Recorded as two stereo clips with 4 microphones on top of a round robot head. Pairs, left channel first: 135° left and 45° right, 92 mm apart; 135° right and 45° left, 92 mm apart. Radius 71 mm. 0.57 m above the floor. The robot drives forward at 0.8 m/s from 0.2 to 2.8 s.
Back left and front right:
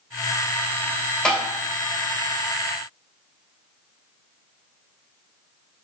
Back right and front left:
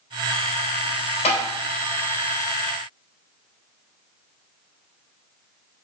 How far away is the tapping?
About 3 m.